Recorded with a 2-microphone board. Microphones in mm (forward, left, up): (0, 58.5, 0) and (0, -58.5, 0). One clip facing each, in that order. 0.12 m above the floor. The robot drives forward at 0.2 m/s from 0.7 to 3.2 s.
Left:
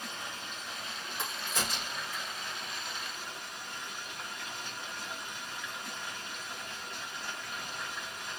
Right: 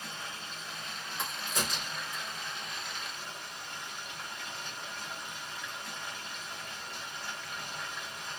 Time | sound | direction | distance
0.0 | running water | 20° left (ahead or behind) | 2.5 m
1.2 | a crack | 5° left (ahead or behind) | 3 m